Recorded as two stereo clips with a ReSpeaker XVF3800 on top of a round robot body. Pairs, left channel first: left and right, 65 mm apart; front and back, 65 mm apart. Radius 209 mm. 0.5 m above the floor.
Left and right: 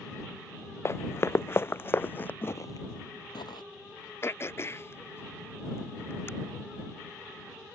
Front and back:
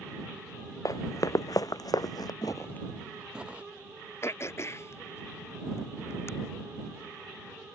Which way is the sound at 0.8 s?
40° left.